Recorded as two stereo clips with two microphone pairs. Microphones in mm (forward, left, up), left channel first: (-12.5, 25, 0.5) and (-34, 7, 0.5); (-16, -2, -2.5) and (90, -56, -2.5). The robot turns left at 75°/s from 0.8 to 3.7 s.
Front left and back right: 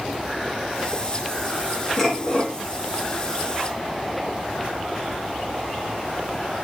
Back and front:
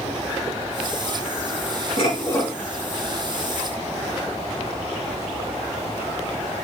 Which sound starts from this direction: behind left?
Dishes clattering, at 2.0 s.